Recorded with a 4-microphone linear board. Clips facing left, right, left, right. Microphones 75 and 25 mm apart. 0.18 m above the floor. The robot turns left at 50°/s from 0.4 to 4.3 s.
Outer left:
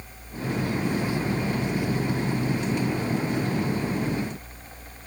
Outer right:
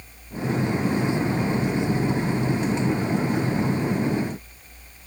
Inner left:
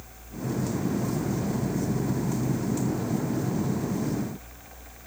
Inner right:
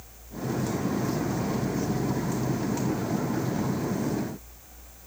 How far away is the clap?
I don't hear a clap.